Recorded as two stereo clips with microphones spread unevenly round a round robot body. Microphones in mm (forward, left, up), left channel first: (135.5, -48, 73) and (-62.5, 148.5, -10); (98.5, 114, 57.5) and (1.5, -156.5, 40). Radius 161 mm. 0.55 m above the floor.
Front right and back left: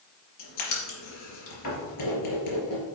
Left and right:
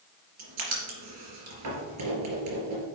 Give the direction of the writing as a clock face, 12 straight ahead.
3 o'clock.